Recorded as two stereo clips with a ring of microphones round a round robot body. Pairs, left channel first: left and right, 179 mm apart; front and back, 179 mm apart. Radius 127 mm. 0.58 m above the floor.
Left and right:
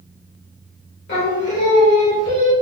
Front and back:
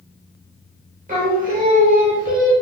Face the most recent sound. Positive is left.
turn(degrees=135)